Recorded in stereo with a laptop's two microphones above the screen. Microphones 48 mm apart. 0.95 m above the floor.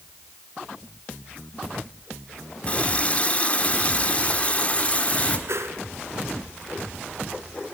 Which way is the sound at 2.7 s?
30° left (ahead or behind).